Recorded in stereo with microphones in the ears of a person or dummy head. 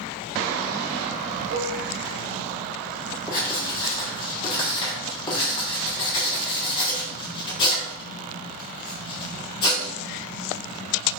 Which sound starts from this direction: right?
Dishes clattering, at 1.5 s.